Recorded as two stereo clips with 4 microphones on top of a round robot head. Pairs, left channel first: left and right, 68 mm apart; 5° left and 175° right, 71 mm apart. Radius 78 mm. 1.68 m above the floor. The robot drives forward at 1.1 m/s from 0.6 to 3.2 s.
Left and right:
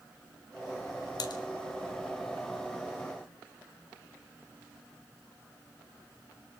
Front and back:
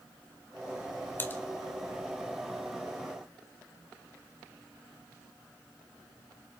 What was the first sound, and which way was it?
Typing on a keyboard, 65° left.